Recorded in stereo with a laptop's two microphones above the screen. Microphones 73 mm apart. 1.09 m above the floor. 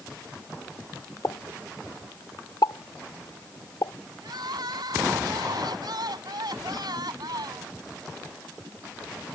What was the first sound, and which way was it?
A pop, 65° left (ahead or behind).